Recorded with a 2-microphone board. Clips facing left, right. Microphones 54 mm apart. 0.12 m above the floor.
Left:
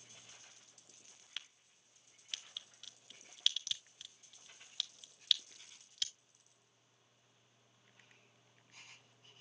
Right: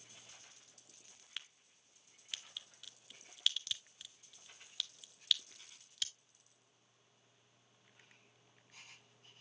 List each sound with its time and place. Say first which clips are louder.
1.4 s a crack: even; centre (ahead or behind), 0.6 m